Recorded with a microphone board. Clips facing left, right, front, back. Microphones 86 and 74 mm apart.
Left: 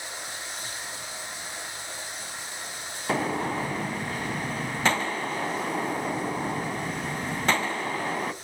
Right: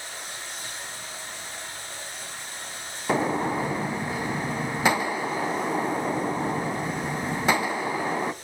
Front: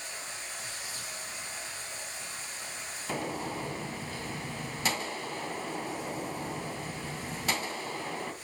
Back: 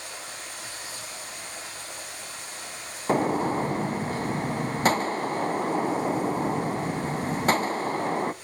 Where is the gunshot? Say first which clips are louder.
Right 3 dB, back 11 dB; 165° right, 0.5 m.